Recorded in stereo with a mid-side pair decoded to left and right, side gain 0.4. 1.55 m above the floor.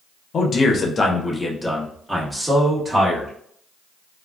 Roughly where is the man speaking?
Ahead left.